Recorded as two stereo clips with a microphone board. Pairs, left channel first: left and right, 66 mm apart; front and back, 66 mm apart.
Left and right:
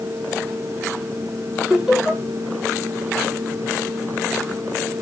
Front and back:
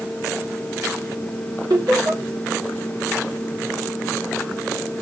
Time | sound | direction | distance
1.7 | laughter | 175° right | 3.5 m